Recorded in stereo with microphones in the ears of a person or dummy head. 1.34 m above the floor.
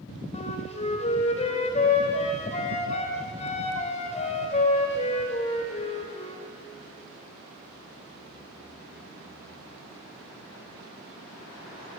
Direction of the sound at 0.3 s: 40° left (ahead or behind).